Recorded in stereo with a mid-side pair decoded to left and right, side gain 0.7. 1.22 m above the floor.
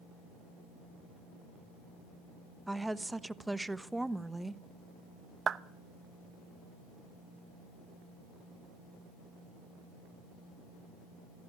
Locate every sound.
2.7 s a woman speaking: 5° right, 1.0 m
5.5 s a clap: 30° right, 0.9 m